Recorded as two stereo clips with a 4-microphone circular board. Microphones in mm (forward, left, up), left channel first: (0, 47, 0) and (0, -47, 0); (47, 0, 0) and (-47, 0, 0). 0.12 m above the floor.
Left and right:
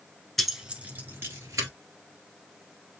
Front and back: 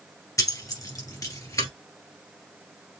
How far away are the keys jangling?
About 1.2 m.